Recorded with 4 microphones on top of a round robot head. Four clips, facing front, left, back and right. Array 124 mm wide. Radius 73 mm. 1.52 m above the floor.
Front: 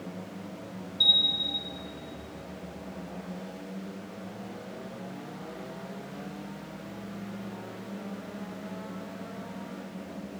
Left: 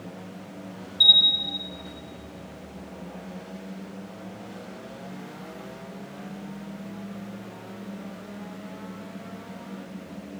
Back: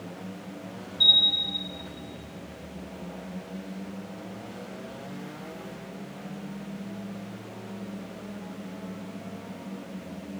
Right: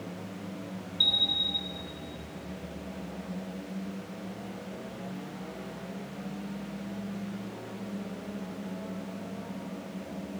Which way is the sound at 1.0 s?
80° left.